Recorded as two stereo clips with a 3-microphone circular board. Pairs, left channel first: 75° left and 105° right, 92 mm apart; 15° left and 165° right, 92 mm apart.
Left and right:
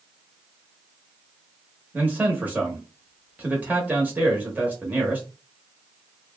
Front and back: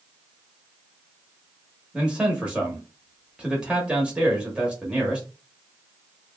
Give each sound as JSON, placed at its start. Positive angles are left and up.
{"t": 1.9, "sound": "a man speaking", "azimuth_deg": -115, "distance_m": 0.8}